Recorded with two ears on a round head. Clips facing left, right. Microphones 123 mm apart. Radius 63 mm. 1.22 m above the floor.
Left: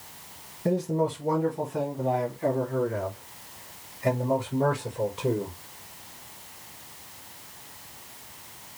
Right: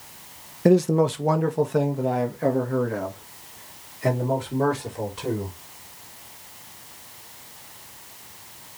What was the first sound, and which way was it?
A man speaking, 85° right.